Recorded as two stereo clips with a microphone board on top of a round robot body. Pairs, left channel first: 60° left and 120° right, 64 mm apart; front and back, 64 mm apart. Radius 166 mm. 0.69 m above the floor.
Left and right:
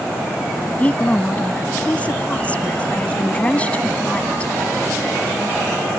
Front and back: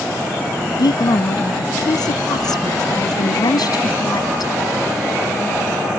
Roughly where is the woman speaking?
Ahead.